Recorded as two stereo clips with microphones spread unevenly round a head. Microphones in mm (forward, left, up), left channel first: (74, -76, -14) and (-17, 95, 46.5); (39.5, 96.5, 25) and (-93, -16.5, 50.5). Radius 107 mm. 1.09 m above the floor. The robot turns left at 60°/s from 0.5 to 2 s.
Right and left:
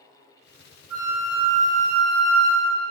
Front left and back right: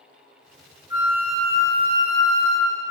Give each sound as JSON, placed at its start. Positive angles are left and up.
{"t": 0.9, "sound": "a flute", "azimuth_deg": 155, "distance_m": 1.3}